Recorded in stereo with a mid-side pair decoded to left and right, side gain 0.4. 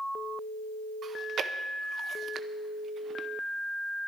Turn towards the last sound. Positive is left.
turn(degrees=-60)